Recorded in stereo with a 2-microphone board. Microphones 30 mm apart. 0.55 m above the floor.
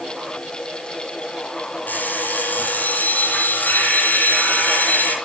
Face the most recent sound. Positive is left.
turn(degrees=75)  # may be behind; listen again after turning